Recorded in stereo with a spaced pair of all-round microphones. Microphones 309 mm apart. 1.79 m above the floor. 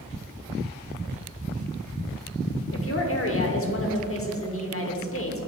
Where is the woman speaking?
45° left (ahead or behind), 1.0 m.